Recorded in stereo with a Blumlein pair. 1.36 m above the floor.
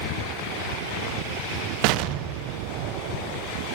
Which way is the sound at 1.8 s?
45° right.